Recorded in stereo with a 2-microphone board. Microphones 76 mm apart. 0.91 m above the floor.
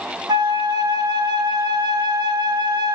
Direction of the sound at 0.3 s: 70° right (ahead or behind).